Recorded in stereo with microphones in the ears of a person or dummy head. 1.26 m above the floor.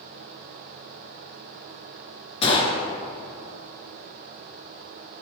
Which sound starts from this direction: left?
A gunshot, at 2.4 s.